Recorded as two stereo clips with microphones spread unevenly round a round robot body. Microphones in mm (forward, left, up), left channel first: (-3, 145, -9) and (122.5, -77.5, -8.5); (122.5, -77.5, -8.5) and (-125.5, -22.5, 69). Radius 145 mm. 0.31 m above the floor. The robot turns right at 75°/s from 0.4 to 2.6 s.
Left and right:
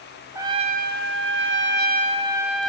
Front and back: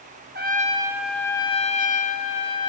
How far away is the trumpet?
About 2 m.